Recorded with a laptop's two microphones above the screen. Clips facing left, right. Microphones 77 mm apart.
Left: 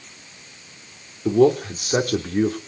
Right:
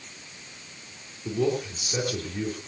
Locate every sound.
1.2 s a man speaking: 60° left (ahead or behind), 3 m